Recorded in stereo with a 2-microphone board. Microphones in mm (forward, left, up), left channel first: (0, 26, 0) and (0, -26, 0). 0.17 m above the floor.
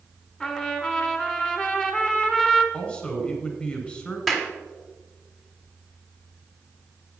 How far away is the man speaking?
About 2.0 m.